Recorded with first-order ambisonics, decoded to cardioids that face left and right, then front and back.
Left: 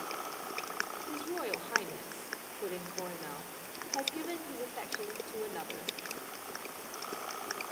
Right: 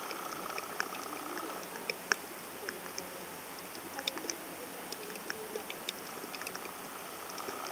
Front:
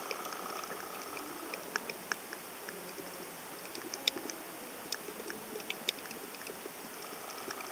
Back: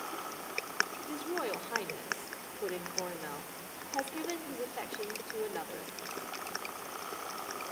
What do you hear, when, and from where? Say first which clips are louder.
1.1 s a woman speaking: left 3 dB, back 5 dB; 150° left, 2.5 m